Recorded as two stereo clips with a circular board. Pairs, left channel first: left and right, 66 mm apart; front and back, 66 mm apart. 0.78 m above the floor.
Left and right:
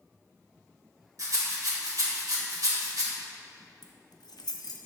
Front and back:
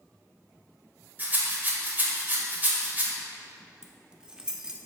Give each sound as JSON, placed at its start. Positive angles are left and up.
{"t": 1.2, "sound": "a rattle", "azimuth_deg": -120, "distance_m": 1.5}
{"t": 3.8, "sound": "keys jangling", "azimuth_deg": 100, "distance_m": 0.6}